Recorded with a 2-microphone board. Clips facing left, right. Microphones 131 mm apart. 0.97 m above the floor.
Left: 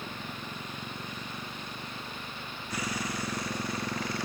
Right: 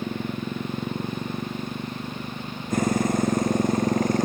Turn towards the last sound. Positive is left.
turn(degrees=-45)  # may be behind; listen again after turning